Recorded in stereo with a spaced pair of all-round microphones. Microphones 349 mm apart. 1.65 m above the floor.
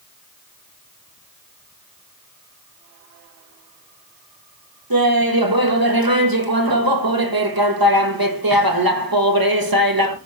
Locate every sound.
4.9 s laughter: 75° right (ahead or behind), 1.6 m